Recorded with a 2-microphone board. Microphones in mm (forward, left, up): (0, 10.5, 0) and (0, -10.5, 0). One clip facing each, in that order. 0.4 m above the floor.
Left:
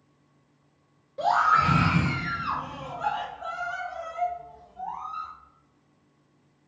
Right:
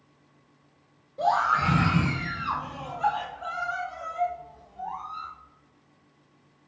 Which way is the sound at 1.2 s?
30° left (ahead or behind).